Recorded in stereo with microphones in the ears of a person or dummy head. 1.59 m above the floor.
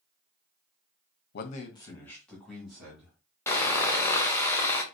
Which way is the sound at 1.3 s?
55° left (ahead or behind).